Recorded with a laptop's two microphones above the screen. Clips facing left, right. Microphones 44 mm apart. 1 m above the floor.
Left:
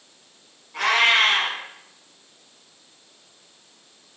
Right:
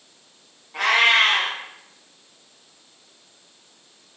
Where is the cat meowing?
25° right (ahead or behind), 1.3 m.